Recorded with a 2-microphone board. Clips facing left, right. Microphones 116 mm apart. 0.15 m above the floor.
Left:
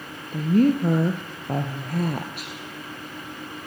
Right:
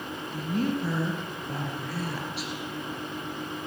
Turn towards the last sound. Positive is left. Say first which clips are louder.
# left 10 dB
turn(degrees=55)  # may be behind; listen again after turning